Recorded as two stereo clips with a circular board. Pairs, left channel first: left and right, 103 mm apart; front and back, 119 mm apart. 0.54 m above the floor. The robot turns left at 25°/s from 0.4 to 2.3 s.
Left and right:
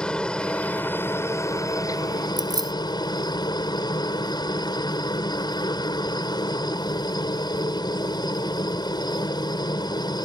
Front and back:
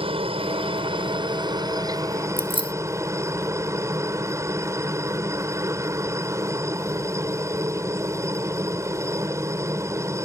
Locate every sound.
0.0 s a helicopter: 170° left; by 10.3 s 120° left
2.4 s keys jangling: 135° right